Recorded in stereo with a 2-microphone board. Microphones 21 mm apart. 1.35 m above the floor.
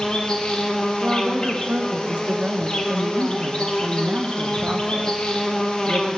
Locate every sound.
0.0 s an insect: 45° left (ahead or behind), 1.1 m
1.0 s a woman speaking: 55° right (ahead or behind), 0.6 m